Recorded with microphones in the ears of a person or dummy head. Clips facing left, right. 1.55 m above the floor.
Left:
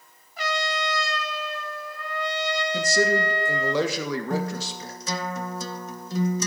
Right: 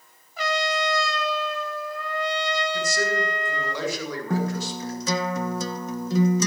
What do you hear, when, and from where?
0.4 s a trumpet: 75° right (ahead or behind), 1.8 m
2.7 s a man speaking: 65° left (ahead or behind), 2 m
4.3 s a guitar: 65° right (ahead or behind), 0.9 m